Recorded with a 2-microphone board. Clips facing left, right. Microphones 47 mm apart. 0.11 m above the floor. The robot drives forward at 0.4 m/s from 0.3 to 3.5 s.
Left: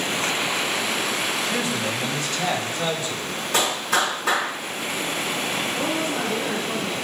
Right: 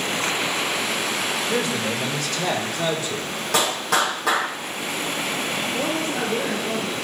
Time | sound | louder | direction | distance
1.5 | a man speaking | right 1 dB | 60° right (ahead or behind) | 4 m
3.5 | a clap | right 1 dB | 65° right (ahead or behind) | 3.5 m
5.7 | a woman speaking | even | 55° right (ahead or behind) | 2 m